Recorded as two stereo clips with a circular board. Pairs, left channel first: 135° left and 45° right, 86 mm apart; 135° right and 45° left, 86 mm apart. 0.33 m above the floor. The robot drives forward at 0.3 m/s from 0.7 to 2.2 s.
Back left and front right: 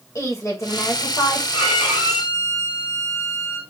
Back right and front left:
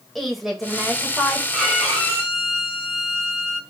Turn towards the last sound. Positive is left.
turn(degrees=135)